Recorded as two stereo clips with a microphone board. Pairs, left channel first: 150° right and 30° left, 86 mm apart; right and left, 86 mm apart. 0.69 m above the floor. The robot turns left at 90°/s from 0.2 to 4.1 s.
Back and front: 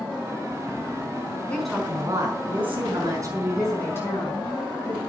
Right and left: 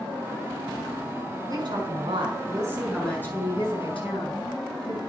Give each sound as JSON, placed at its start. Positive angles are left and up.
{"t": 1.5, "sound": "a woman speaking", "azimuth_deg": 135, "distance_m": 5.5}